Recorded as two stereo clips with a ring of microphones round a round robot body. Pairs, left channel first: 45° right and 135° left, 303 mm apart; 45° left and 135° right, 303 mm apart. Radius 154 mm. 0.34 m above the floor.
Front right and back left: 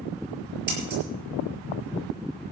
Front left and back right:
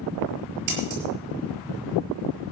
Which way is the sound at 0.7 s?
165° right.